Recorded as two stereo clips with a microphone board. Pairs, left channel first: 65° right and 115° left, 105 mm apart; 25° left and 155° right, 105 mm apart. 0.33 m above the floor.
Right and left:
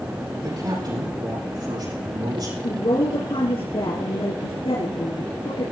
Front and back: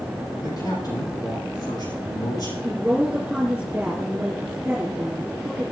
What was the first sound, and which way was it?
A man speaking, 70° left.